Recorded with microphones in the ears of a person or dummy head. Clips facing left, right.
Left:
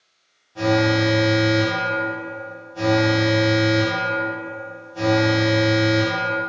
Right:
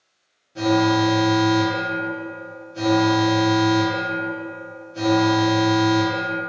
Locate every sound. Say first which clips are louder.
0.6 s an alarm: right 1 dB; 25° right (ahead or behind), 0.8 m